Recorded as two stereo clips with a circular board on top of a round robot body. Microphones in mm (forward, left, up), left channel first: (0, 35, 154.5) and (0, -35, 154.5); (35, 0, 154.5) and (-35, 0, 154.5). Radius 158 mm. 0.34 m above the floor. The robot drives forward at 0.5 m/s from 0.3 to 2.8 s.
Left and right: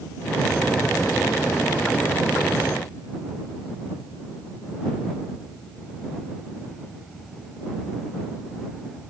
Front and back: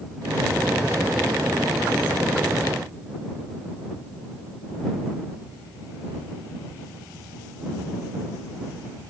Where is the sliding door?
I don't hear a sliding door.